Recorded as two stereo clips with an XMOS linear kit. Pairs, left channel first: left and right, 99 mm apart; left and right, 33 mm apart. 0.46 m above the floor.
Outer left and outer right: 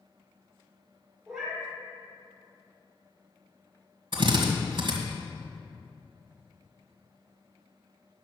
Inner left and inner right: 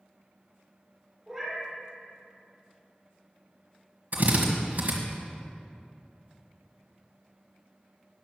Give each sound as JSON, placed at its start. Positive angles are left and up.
{"t": 1.3, "sound": "a cat meowing", "side_deg": -5, "distance_m": 4.0}
{"t": 4.1, "sound": "a drill", "side_deg": -55, "distance_m": 1.6}